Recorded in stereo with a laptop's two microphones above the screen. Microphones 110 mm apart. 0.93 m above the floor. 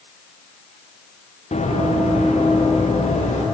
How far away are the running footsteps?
About 4.5 m.